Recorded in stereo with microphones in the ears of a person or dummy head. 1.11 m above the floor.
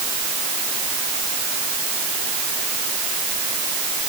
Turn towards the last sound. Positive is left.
No sound to turn to.